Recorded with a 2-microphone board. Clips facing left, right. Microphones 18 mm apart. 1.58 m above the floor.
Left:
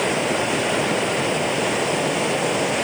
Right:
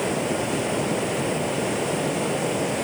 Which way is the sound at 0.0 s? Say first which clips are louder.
Left 4 dB; 30° left (ahead or behind).